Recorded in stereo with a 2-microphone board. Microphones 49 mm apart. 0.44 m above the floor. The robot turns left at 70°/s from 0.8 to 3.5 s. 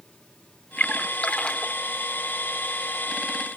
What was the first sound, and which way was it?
A splash, 35° left (ahead or behind).